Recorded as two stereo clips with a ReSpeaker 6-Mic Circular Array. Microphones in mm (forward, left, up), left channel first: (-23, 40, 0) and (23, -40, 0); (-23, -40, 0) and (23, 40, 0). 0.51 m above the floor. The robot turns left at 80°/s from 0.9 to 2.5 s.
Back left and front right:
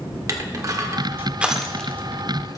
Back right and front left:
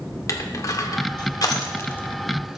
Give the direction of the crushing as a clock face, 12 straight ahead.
3 o'clock.